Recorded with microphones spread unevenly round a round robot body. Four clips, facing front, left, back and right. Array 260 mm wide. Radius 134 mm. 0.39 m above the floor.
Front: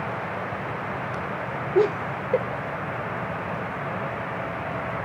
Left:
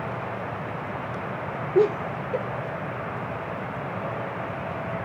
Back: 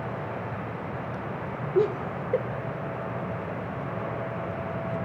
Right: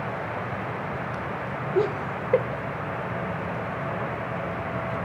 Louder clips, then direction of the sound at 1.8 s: Left 4 dB, front 3 dB; 70° left.